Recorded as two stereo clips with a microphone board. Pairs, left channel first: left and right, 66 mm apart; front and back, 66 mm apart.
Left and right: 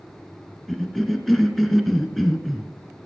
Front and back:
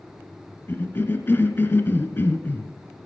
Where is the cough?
Straight ahead, 1.3 m.